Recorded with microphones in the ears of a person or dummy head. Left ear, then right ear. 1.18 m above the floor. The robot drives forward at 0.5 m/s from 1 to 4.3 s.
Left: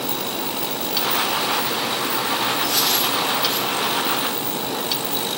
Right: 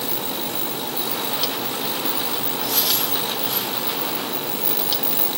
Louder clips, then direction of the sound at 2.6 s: Left 3 dB; centre (ahead or behind).